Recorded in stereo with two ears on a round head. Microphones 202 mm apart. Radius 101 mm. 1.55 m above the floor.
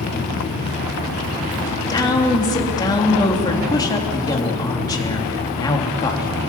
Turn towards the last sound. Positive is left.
turn(degrees=15)  # may be behind; listen again after turning